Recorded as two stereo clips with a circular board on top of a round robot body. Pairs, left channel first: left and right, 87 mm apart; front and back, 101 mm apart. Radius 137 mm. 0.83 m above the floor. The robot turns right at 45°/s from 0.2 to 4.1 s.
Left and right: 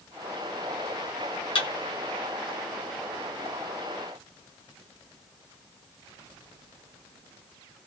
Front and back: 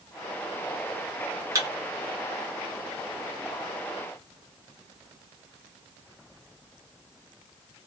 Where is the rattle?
I don't hear a rattle.